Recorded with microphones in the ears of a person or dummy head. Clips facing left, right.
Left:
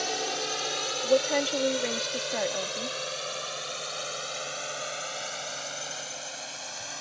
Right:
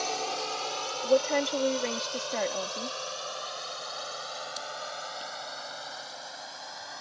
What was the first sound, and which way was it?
A drone, 15° left (ahead or behind).